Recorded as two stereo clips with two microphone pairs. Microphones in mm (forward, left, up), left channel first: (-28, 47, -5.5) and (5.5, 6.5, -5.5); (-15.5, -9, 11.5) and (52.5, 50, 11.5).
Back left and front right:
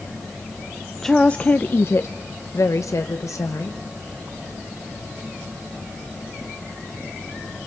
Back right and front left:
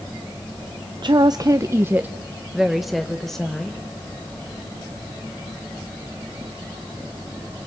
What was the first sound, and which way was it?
A woman speaking, 50° left.